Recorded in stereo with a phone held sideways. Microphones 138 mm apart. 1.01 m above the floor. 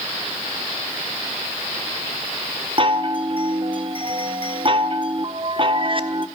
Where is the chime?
40° right (ahead or behind), 1.3 m.